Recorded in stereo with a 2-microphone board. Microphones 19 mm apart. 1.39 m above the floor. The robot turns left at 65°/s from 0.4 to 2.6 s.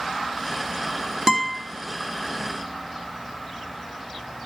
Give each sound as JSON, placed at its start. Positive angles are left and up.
{"t": 1.3, "sound": "a guitar", "side_deg": -30, "distance_m": 2.5}